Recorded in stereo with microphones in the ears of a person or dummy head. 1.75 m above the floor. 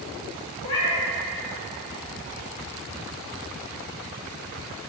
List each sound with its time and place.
0.6 s a cat meowing: 25° left (ahead or behind), 1.4 m